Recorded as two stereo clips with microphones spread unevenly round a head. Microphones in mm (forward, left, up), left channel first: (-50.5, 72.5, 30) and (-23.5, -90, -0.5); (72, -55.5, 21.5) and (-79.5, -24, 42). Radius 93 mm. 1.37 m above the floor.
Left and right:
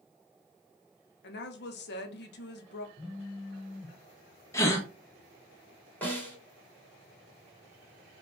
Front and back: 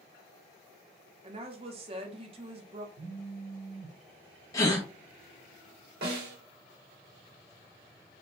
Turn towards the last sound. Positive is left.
turn(degrees=180)